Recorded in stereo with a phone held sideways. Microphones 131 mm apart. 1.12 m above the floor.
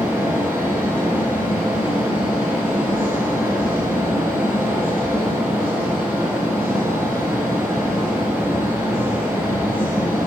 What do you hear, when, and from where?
0.0 s a fan: 15° right (ahead or behind), 1.4 m